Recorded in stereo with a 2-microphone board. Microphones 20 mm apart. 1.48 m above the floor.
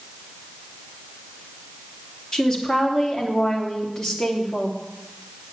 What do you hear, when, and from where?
2.3 s a woman speaking: 15° left (ahead or behind), 3 m